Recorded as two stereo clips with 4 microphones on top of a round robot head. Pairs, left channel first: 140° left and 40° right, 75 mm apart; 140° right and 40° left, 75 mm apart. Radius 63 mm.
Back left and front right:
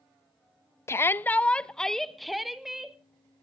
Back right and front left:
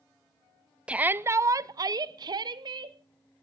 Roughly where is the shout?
Left.